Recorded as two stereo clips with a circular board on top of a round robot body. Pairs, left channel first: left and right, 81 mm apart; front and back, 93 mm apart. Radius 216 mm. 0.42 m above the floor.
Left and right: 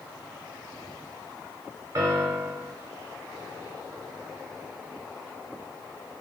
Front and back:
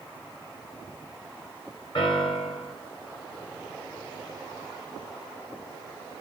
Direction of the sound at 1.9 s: 30° right.